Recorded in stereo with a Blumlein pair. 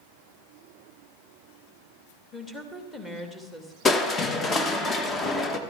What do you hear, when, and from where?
2.3 s a woman speaking: 10° left, 2.5 m
3.9 s crushing: 15° left, 1.3 m